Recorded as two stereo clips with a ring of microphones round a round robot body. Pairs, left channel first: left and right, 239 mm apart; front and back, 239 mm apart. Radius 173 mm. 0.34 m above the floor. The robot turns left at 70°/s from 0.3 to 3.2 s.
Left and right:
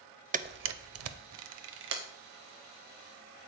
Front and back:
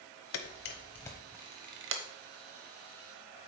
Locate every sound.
0.3 s a camera shutter: 30° right, 0.5 m; by 2.0 s 145° right, 0.5 m